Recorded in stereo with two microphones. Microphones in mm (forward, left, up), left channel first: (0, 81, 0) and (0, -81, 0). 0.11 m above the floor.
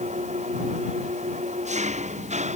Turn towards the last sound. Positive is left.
turn(degrees=-45)  # may be behind; listen again after turning